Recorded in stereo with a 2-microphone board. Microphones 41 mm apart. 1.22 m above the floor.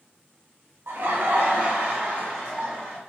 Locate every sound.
0.9 s laughter: 65° right (ahead or behind), 0.6 m; by 3.0 s 20° right (ahead or behind), 1.2 m